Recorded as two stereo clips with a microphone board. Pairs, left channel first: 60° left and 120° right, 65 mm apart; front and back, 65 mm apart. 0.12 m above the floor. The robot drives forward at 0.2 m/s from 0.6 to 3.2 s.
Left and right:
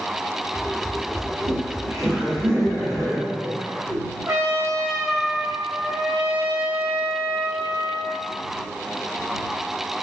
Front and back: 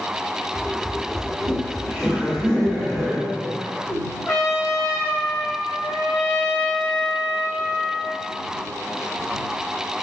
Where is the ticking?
I don't hear ticking.